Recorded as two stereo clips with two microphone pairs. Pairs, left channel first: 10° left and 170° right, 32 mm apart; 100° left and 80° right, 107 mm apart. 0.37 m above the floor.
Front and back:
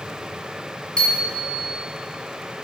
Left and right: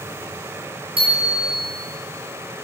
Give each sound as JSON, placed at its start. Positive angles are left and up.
{"t": 1.0, "sound": "a bicycle bell", "azimuth_deg": -50, "distance_m": 5.0}